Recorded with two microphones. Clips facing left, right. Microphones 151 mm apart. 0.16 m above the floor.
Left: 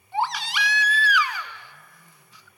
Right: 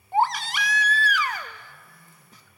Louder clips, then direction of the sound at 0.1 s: Right 3 dB; 45° right (ahead or behind).